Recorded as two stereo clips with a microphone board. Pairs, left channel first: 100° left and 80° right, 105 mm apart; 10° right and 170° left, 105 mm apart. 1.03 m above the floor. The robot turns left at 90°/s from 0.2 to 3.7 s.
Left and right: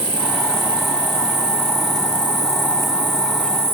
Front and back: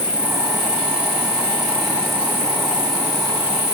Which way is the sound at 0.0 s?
110° right.